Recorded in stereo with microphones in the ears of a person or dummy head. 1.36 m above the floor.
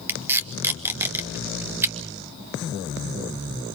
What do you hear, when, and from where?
0.1 s tape being pulled: 10° right (ahead or behind), 1.6 m